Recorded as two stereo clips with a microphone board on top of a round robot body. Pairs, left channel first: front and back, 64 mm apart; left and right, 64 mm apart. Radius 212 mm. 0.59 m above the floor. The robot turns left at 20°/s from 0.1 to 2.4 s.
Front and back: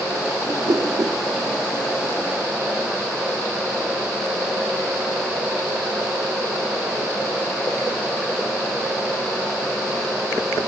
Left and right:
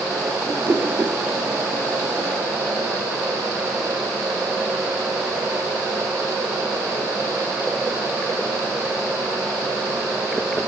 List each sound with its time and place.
0.5 s a whoosh: 145° right, 1.9 m; by 1.2 s 155° right, 1.9 m